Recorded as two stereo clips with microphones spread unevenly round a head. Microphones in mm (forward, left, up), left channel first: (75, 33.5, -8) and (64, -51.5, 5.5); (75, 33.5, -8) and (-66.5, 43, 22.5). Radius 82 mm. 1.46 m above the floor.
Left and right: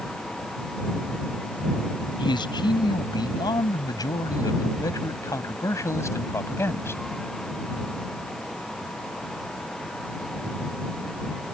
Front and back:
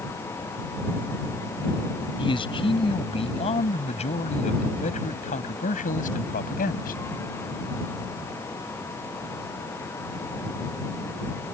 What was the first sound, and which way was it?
A man speaking, 55° left.